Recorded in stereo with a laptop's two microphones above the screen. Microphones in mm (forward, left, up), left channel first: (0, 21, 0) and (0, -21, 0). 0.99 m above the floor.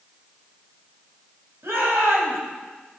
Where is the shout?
85° right, 5 m.